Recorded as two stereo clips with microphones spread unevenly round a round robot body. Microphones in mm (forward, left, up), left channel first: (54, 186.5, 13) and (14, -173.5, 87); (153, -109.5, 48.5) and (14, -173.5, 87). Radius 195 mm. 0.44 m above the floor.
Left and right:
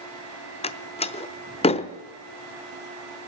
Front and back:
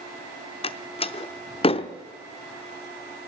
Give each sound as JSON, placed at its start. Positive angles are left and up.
{"t": 0.6, "sound": "a door slam", "azimuth_deg": 25, "distance_m": 0.7}